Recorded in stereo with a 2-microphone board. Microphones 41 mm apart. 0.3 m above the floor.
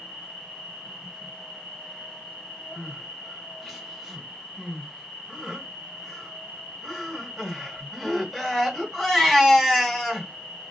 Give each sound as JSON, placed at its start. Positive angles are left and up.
{"t": 0.0, "sound": "an insect", "side_deg": -35, "distance_m": 1.7}
{"t": 2.8, "sound": "crying", "side_deg": 0, "distance_m": 1.9}